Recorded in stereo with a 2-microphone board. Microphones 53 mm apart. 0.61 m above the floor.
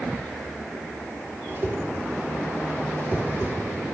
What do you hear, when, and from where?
1.5 s a whoosh: 45° right (ahead or behind), 0.6 m